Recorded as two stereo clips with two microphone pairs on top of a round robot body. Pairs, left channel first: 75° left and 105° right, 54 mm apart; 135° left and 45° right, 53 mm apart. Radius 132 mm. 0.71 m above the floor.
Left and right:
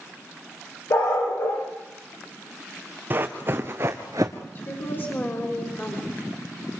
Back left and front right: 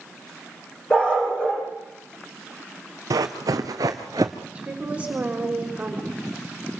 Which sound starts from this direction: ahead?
A woman speaking, at 4.5 s.